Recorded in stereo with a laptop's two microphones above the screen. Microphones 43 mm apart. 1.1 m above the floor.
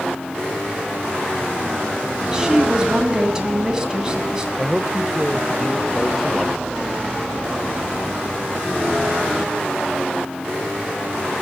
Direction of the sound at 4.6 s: 5° left (ahead or behind).